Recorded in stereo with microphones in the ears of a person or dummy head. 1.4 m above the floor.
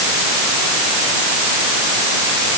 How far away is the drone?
No drone in this recording.